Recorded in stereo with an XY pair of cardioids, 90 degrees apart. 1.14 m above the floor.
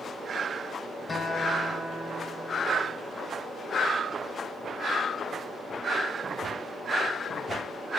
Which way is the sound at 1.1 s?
45° left.